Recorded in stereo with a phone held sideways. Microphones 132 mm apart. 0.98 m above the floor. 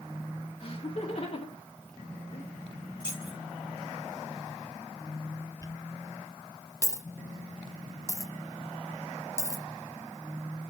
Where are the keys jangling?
35° left (ahead or behind), 4 m.